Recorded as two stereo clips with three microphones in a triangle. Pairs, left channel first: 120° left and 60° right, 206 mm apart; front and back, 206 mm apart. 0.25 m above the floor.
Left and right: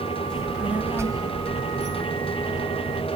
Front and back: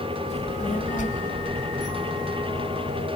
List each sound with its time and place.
0.3 s a child speaking: 35° left, 1.1 m; by 3.1 s 50° right, 1.5 m